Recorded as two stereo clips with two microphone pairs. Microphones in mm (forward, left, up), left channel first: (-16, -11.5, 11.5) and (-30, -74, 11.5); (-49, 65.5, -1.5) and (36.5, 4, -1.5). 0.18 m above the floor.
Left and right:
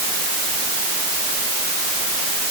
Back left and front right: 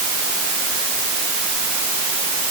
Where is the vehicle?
No vehicle in this recording.